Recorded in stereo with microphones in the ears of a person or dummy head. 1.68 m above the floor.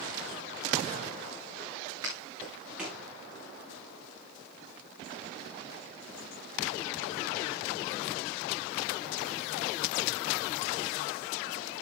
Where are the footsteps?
15° right (ahead or behind), 7.5 m; by 3.0 s centre (ahead or behind), 7 m.